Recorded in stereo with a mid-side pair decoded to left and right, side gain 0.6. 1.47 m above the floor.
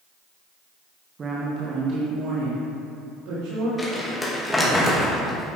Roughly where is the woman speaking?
Ahead right.